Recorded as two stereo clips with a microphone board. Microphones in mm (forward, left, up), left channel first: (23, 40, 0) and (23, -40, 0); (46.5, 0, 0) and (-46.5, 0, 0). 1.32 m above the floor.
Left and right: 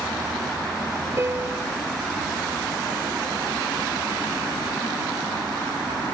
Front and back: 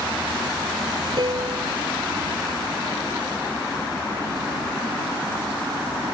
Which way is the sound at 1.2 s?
145° right.